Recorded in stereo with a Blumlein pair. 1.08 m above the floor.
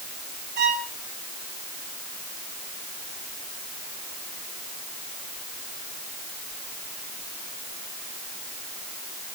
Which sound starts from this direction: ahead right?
A violin, at 0.6 s.